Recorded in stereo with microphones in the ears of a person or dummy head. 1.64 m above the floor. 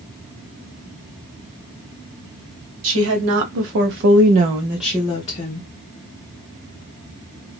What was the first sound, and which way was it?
A woman speaking, 70° right (ahead or behind).